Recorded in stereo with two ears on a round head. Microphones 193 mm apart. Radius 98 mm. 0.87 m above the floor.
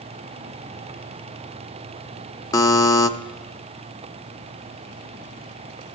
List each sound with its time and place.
2.5 s a buzzer: 15° left (ahead or behind), 0.9 m